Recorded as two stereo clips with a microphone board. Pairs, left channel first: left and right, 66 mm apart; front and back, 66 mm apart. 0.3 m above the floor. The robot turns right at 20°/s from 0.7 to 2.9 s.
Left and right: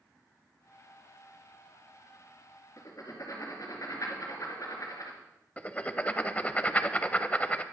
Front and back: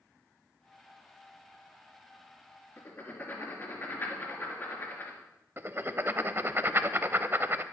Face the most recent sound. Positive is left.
turn(degrees=145)